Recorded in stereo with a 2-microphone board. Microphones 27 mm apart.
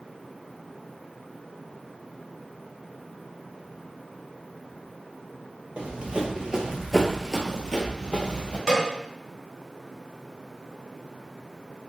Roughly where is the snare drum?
Right.